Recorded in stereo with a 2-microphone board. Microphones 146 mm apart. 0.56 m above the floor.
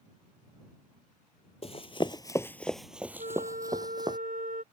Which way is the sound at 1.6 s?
45° left (ahead or behind).